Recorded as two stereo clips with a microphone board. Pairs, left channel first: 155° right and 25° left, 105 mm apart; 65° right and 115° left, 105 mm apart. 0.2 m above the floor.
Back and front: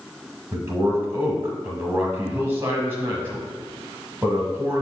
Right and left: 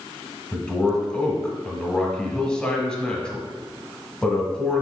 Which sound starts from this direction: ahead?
A man speaking, at 0.5 s.